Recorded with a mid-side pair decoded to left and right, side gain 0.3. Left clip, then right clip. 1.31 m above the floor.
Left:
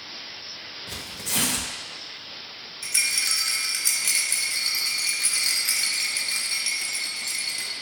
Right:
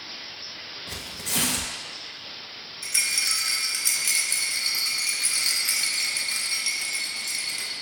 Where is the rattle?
5° left, 1.2 m.